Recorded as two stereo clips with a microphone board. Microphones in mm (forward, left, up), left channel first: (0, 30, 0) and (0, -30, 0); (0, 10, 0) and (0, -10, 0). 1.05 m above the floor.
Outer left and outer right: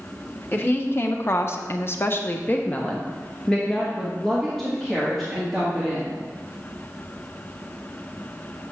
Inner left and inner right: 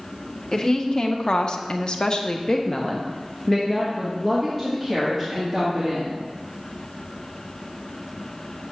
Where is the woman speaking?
35° left (ahead or behind), 1.0 m; by 6.2 s 5° right (ahead or behind), 2.5 m.